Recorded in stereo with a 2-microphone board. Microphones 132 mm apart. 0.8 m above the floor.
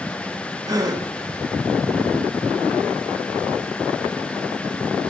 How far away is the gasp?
About 1.3 m.